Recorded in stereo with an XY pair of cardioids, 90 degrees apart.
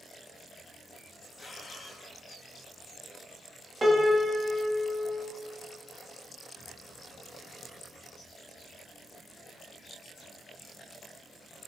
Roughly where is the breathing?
Ahead left.